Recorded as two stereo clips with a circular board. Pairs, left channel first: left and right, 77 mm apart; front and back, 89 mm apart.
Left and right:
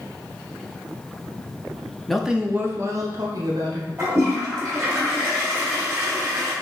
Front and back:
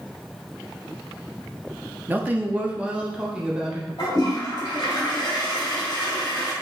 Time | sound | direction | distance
2.1 | a man speaking | 165° left | 0.6 m
4.0 | a toilet flushing | 35° right | 2 m